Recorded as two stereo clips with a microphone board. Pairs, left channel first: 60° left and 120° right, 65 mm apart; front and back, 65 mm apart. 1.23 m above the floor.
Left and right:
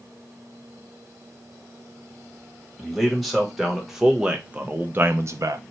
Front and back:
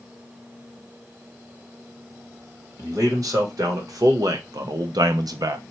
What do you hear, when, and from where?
2.8 s a man speaking: 145° left, 1.6 m; by 5.6 s 145° right, 0.5 m